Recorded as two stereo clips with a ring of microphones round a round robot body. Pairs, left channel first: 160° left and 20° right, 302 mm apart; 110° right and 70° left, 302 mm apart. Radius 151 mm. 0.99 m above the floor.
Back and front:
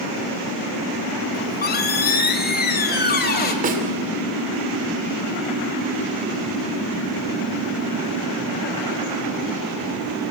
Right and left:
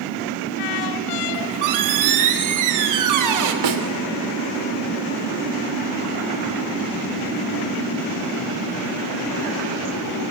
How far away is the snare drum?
About 2.5 m.